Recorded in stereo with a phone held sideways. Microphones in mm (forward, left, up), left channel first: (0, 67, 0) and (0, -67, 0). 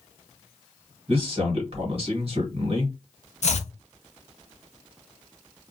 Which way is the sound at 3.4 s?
60° left (ahead or behind).